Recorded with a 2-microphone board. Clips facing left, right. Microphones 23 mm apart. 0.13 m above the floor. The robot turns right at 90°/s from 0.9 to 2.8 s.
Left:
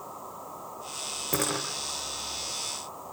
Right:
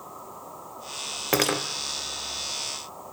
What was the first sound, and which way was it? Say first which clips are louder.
Cutlery clinking: right 6 dB; 50° right (ahead or behind).